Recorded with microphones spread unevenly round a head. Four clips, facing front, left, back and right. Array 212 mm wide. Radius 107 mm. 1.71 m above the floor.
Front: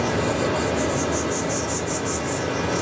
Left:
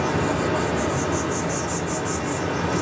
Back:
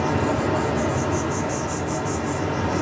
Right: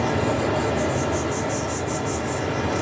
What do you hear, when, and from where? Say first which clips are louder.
0.0 s an insect: even, even; 130° left, 0.8 m